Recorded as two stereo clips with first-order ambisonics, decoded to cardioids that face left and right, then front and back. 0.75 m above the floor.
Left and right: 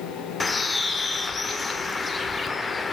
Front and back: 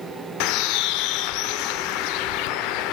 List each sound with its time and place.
0.4 s a bird: 15° left, 0.9 m